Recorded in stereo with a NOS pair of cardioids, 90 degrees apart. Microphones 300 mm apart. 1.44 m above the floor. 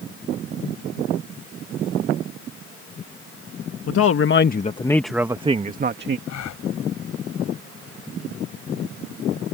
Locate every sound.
3.9 s a man speaking: 55° left; by 6.2 s 40° right
6.3 s a gasp: 65° left